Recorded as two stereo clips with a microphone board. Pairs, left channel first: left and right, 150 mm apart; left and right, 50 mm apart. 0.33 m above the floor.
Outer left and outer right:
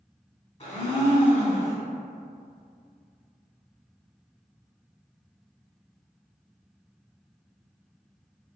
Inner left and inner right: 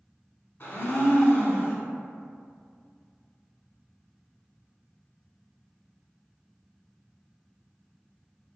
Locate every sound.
0.6 s a blender: 45° left (ahead or behind), 0.8 m